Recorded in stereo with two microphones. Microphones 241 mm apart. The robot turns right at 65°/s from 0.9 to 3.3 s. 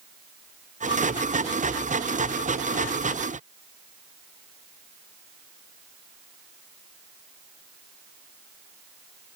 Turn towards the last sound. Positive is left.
No sound to turn to.